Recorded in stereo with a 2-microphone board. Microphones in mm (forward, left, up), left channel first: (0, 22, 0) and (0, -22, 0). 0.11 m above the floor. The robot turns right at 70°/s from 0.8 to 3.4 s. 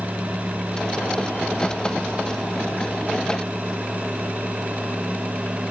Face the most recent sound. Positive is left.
No sound to turn to.